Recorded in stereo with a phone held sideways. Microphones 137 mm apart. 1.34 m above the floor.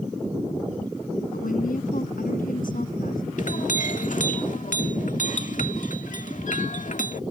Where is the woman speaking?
85° left.